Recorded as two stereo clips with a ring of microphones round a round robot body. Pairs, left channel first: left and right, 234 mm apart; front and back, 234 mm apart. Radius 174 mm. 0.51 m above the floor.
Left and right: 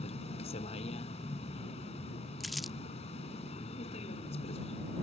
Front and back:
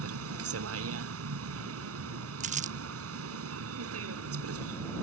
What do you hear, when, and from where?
0.0 s a vehicle: 165° left
2.4 s crumpling: straight behind